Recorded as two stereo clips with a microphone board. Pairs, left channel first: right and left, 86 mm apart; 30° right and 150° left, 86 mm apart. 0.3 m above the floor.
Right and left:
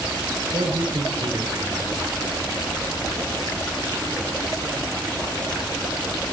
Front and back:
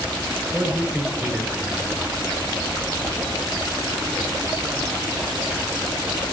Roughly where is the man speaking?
Left.